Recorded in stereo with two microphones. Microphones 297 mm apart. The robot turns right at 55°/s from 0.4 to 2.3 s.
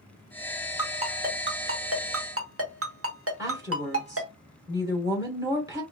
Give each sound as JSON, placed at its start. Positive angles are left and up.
{"t": 0.8, "sound": "a ringtone", "side_deg": -15, "distance_m": 0.9}
{"t": 3.4, "sound": "a woman speaking", "side_deg": -10, "distance_m": 1.4}